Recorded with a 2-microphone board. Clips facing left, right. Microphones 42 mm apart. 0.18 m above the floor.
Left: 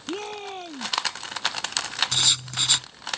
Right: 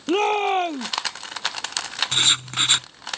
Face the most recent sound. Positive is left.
turn(degrees=-40)  # may be behind; listen again after turning